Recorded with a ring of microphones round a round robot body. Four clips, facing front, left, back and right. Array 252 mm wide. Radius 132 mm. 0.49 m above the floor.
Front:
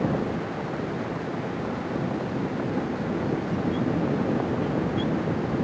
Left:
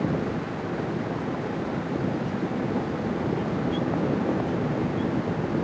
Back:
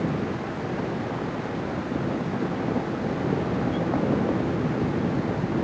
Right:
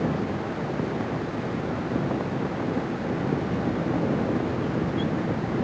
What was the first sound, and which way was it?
Only background noise.